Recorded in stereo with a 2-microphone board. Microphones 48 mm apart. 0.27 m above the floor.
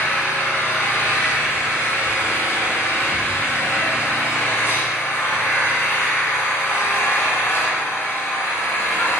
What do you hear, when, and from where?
0.0 s an engine running: 60° left (ahead or behind), 2.0 m